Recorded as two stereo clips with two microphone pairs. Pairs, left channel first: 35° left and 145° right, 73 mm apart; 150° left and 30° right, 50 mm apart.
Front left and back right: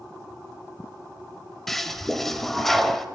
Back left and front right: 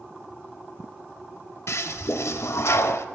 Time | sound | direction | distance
1.7 | a toilet flushing | 120° left | 0.6 m